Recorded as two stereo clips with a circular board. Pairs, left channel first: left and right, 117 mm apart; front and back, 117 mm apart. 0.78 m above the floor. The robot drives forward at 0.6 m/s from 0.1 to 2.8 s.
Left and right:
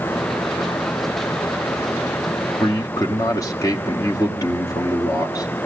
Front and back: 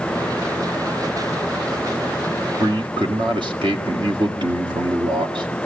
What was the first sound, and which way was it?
A man speaking, 140° left.